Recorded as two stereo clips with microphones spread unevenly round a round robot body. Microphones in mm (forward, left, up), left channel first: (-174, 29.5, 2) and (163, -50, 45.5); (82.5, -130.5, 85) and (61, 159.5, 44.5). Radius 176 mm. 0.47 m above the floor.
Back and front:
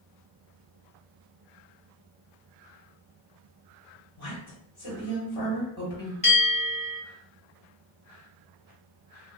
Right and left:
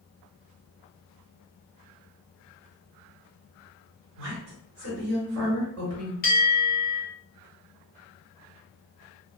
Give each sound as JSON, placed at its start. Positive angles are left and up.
{"t": 4.2, "sound": "a woman speaking", "azimuth_deg": 120, "distance_m": 1.2}
{"t": 6.2, "sound": "a bell", "azimuth_deg": -140, "distance_m": 1.1}